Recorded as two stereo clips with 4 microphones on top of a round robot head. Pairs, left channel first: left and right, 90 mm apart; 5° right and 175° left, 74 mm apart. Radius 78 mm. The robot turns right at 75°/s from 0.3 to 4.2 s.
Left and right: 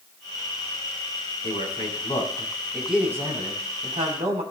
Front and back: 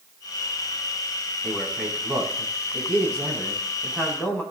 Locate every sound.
1.4 s a man speaking: 80° left, 5.5 m; by 4.4 s 75° right, 5.5 m